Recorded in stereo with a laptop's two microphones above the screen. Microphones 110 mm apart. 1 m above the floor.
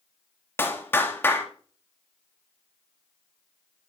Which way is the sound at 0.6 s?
20° left (ahead or behind).